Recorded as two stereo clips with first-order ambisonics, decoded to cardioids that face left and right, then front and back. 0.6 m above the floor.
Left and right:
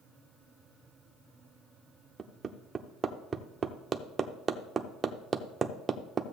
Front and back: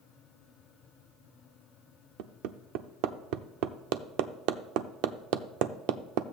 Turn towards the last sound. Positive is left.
turn(degrees=-160)